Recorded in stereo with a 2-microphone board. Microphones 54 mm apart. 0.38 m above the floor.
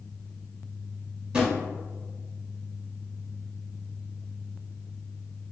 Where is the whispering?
No whispering in this recording.